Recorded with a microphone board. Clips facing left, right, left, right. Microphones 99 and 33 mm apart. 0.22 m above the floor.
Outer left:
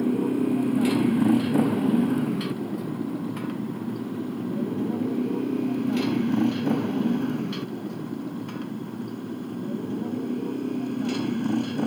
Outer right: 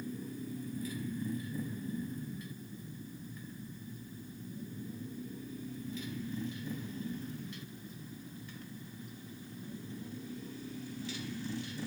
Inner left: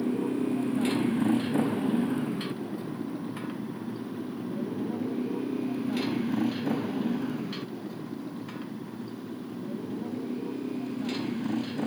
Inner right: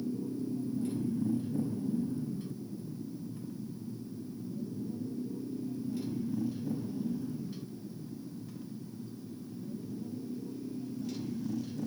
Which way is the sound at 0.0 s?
80° left.